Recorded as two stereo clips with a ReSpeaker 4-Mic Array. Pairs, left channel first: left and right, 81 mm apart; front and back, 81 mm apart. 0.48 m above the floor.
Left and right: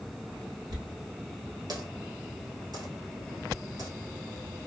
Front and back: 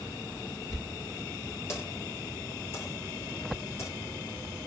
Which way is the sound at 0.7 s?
55° right.